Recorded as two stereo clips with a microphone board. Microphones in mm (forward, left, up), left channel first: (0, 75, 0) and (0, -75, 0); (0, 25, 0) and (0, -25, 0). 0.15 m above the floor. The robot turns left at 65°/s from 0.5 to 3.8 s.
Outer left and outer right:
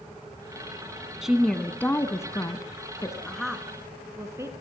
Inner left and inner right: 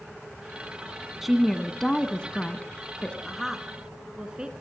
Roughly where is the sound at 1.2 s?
Centre.